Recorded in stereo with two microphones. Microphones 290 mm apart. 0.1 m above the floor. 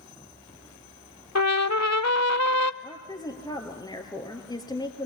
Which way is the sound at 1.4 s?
70° left (ahead or behind).